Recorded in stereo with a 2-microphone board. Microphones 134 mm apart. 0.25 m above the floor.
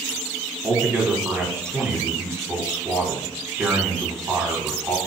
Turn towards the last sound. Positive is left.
turn(degrees=-20)  # may be behind; listen again after turning